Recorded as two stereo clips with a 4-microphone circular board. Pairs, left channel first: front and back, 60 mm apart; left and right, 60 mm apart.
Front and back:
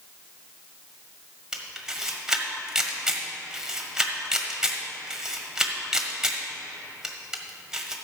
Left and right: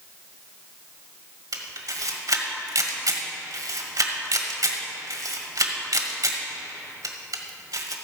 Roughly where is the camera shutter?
Right.